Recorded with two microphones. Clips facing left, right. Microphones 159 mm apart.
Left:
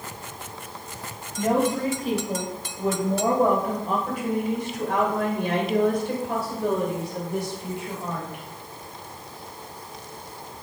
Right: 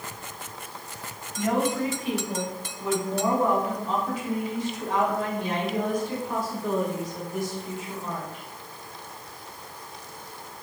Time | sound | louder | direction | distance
1.4 | a woman speaking | left 3 dB | 35° left (ahead or behind) | 5 m